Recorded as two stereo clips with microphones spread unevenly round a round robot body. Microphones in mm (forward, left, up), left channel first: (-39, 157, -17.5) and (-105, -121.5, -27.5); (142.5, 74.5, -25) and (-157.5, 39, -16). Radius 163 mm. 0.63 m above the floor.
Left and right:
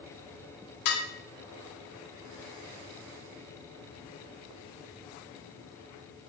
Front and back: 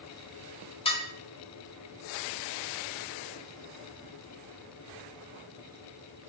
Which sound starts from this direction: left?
Dishes clattering, at 0.8 s.